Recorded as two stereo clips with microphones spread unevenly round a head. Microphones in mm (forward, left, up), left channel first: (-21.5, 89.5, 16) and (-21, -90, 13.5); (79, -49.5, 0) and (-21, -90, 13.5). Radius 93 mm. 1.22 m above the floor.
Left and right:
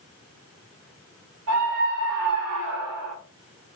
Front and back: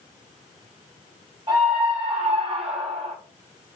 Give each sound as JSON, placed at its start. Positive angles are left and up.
{"t": 1.5, "sound": "a scream", "azimuth_deg": -115, "distance_m": 6.5}